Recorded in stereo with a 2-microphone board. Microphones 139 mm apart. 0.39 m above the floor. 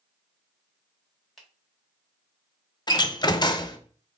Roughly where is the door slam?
Left.